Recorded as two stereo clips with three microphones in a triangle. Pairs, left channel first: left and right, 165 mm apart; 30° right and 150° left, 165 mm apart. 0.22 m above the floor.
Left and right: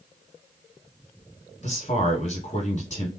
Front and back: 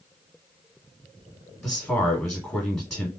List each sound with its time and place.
1.6 s a man speaking: 60° left, 3 m